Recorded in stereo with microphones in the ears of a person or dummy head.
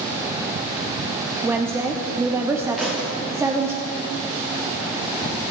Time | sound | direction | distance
1.4 | a woman speaking | 10° right (ahead or behind) | 0.6 m
2.8 | a thud | centre (ahead or behind) | 1.6 m